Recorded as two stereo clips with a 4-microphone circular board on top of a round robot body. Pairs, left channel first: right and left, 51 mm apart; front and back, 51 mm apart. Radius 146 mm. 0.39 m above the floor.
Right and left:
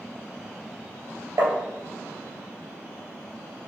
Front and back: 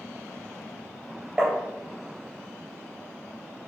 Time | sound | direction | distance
1.4 | tapping | 105° left | 2.5 m